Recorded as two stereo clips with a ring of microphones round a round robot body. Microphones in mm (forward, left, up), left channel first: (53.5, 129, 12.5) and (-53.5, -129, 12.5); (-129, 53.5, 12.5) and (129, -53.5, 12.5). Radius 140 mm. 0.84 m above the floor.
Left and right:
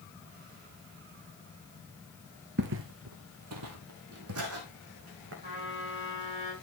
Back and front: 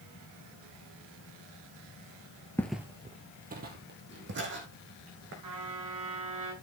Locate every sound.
2.6 s footsteps: 125° right, 0.9 m; by 5.3 s 70° right, 4 m
5.4 s a trumpet: 45° right, 7 m